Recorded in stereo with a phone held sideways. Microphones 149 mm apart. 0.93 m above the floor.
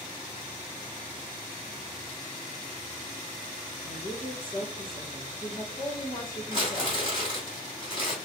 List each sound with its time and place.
3.8 s a woman speaking: 65° left (ahead or behind), 1.8 m
6.5 s crumpling: 40° left (ahead or behind), 3 m